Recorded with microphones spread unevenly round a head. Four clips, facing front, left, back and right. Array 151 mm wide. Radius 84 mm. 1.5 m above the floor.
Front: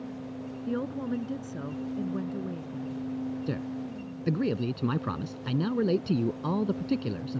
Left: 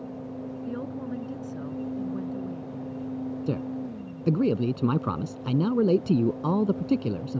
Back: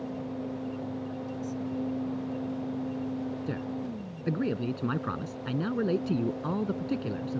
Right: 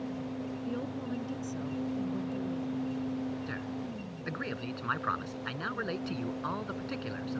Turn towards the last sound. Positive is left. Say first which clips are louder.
# left 7 dB, even
turn(degrees=90)